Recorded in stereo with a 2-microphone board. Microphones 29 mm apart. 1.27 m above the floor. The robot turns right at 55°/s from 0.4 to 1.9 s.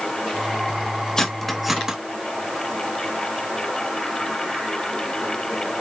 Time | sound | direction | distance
1.2 | cutlery clinking | 15° left (ahead or behind) | 1.0 m